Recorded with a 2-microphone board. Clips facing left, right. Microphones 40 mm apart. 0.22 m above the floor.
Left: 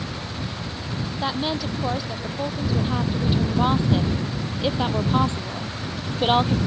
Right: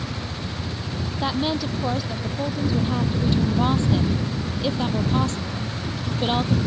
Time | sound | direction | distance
1.2 | a woman speaking | centre (ahead or behind) | ?